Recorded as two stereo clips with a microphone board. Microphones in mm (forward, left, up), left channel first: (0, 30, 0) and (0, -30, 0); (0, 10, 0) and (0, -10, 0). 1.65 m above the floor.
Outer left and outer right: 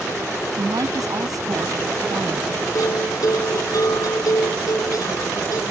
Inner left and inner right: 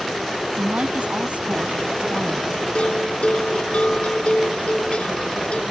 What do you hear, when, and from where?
0.6 s a woman speaking: 75° right (ahead or behind)
2.8 s a bell: 70° left (ahead or behind)